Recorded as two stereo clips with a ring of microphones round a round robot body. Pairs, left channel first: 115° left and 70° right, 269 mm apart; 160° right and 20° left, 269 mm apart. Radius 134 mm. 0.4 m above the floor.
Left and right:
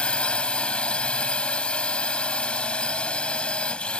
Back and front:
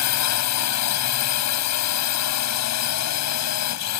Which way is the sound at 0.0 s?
160° right.